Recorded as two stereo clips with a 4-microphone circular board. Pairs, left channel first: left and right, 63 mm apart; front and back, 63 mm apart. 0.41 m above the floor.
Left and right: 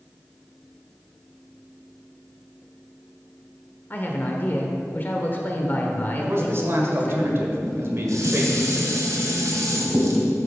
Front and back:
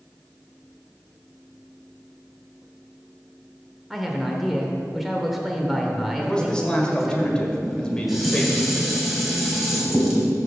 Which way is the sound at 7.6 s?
95° right.